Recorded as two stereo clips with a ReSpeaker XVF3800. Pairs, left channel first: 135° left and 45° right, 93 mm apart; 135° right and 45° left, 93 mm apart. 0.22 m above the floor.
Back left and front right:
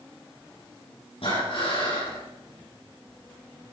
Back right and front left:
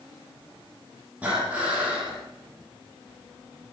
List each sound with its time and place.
1.2 s breathing: 120° left, 9.5 m